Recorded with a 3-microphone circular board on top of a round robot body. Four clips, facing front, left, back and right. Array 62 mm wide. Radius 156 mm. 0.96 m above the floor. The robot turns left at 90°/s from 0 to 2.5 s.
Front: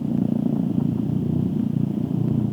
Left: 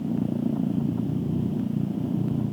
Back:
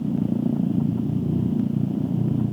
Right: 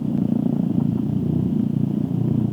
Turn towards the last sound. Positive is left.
No sound to turn to.